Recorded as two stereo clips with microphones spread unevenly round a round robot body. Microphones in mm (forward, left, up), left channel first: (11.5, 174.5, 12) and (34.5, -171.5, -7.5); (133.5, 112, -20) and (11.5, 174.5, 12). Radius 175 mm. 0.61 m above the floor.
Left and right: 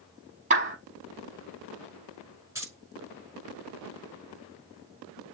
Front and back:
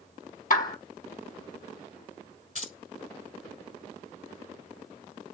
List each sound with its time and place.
0.5 s a clap: 15° right, 5 m
2.5 s keys jangling: 5° right, 5 m